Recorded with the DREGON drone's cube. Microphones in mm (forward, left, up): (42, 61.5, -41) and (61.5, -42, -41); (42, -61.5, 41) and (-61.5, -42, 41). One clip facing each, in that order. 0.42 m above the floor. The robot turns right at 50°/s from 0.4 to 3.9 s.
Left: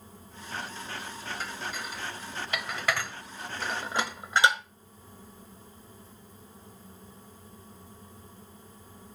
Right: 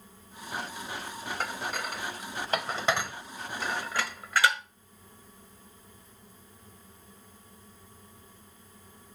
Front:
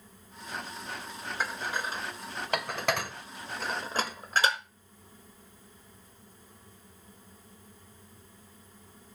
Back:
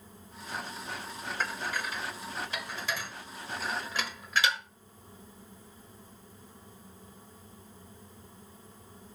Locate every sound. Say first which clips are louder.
1.4 s dishes clattering: right 6 dB, front 1 dB; 90° right, 1.0 m; by 4.6 s 35° left, 1.0 m